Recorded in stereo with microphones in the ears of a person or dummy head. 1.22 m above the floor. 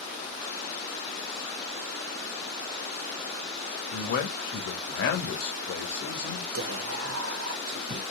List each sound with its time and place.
3.9 s a man speaking: 55° left (ahead or behind), 1.4 m
6.5 s whispering: 85° right, 1.0 m